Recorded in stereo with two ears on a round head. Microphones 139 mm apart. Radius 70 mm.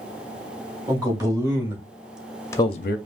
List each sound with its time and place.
0.9 s a man speaking: 25° right (ahead or behind), 2 m; by 3.0 s 65° left (ahead or behind), 0.5 m